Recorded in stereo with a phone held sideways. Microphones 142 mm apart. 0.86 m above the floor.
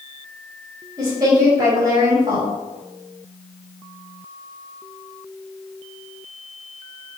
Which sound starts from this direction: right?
A woman speaking, at 1.0 s.